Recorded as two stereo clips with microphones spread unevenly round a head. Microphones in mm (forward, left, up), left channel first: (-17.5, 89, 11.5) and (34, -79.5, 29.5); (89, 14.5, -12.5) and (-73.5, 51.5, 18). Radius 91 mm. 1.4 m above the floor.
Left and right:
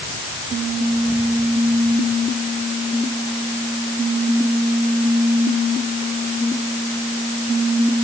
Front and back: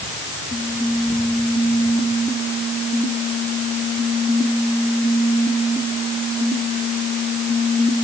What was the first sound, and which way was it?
Only background noise.